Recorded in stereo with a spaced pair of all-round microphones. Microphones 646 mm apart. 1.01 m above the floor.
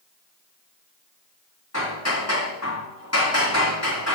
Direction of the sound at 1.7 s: 25° left (ahead or behind).